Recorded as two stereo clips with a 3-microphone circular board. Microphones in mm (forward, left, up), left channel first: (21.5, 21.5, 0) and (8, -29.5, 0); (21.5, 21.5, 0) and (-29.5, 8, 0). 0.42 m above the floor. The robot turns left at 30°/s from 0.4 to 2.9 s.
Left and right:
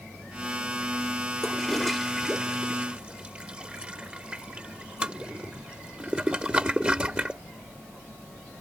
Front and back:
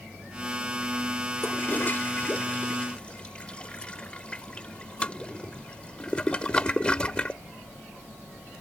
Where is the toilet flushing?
5° left; by 7.4 s 40° right.